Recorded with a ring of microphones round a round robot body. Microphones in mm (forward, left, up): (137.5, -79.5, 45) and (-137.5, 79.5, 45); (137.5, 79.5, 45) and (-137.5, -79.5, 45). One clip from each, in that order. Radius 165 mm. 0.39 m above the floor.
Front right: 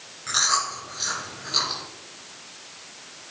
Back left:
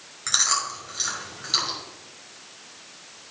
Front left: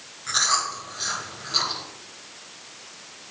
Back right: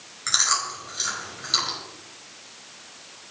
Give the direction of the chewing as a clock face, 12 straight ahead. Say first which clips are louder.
Even, even; 6 o'clock.